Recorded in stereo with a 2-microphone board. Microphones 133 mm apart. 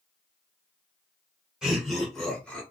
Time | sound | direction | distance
1.6 | laughter | 5° right (ahead or behind) | 1.6 m